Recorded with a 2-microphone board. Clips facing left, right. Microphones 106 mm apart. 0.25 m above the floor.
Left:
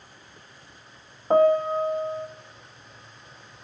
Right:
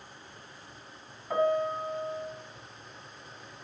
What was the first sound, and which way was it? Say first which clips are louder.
A piano: left 8 dB; 55° left (ahead or behind).